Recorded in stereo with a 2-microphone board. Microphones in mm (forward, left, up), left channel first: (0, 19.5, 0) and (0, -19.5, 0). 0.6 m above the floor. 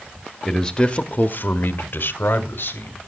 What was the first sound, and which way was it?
A man speaking, centre (ahead or behind).